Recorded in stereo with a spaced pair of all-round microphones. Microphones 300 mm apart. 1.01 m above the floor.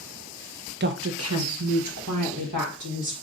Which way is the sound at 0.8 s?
35° right (ahead or behind).